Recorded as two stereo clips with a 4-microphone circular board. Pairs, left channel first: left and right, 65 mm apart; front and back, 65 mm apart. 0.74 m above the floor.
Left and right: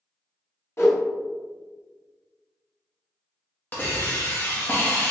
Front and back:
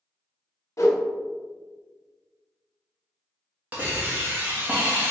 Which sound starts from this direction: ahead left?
A whoosh, at 0.8 s.